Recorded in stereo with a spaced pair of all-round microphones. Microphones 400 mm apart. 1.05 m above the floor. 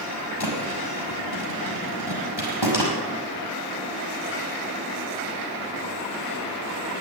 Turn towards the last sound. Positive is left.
turn(degrees=80)